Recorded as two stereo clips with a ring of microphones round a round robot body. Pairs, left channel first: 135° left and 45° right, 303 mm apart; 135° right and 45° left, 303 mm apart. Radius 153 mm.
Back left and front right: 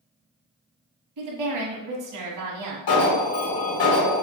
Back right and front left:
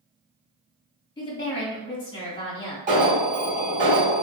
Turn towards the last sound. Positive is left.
turn(degrees=110)